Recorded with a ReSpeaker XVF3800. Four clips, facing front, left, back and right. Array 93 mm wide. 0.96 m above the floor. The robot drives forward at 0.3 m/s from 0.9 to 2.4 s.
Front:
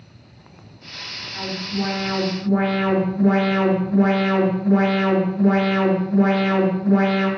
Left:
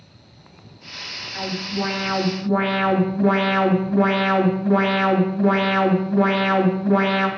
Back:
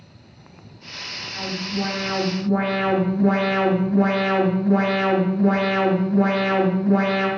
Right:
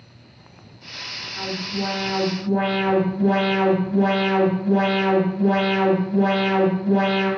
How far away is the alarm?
About 3 m.